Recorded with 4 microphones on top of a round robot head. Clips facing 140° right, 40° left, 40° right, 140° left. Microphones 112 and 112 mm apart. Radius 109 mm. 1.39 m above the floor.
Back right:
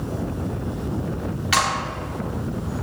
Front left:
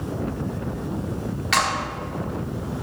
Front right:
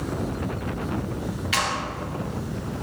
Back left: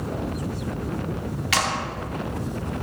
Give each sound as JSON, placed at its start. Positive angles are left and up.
{"t": 1.5, "sound": "a clap", "azimuth_deg": 135, "distance_m": 1.9}